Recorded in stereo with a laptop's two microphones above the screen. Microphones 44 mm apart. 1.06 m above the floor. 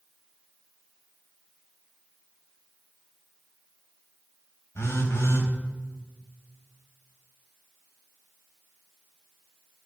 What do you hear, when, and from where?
4.8 s a phone buzzing: 75° left (ahead or behind), 3 m